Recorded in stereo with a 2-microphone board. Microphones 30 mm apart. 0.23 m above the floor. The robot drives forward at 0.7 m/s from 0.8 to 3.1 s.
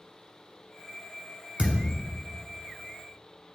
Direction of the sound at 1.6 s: 45° right (ahead or behind).